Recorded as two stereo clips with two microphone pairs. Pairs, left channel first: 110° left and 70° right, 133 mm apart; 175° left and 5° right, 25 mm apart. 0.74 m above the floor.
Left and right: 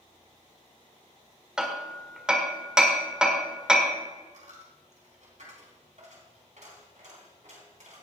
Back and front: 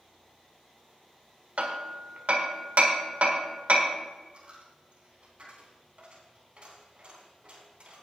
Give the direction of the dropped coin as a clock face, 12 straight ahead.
2 o'clock.